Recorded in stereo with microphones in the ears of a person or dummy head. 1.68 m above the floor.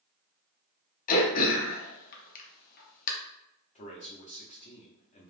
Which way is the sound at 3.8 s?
40° left (ahead or behind).